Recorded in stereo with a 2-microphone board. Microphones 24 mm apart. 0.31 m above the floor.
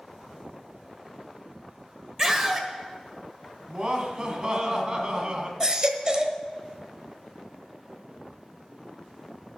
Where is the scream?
20° right (ahead or behind), 1.6 m.